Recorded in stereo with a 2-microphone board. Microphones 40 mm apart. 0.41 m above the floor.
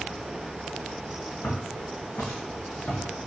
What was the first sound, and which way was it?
Footsteps, 60° left (ahead or behind).